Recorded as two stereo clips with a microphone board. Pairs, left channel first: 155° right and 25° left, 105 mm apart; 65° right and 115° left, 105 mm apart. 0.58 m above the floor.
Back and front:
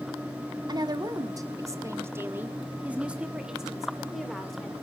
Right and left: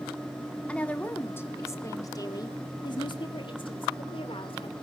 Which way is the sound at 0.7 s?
5° left.